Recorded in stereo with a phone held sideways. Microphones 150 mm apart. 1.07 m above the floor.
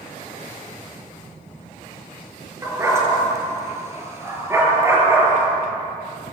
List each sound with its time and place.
2.6 s a dog barking: 20° right (ahead or behind), 5.5 m